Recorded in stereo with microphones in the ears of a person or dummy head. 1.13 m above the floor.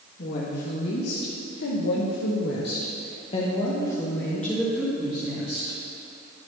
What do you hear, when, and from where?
0.2 s a woman speaking: 55° left (ahead or behind), 1.8 m; by 5.8 s 5° right (ahead or behind), 2 m